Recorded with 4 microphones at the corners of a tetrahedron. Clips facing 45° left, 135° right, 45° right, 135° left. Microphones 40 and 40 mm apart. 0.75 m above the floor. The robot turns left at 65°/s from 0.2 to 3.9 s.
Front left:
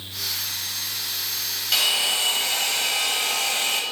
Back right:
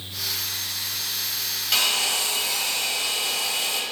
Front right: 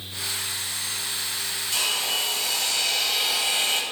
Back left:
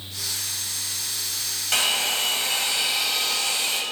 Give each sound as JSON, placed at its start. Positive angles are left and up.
{"t": 1.7, "sound": "a hair dryer", "azimuth_deg": 135, "distance_m": 1.3}